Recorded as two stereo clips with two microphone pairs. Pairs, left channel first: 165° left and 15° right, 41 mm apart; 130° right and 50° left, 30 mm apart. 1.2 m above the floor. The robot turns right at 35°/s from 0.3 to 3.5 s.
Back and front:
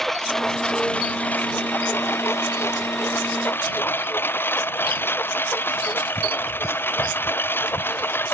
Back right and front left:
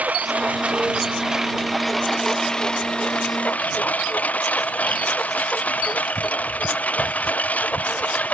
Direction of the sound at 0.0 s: 80° left.